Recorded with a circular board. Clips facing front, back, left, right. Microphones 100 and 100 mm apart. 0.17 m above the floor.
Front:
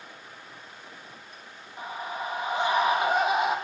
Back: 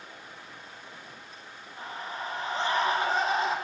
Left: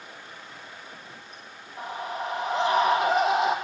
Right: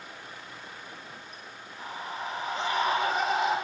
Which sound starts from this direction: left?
A scream, at 1.8 s.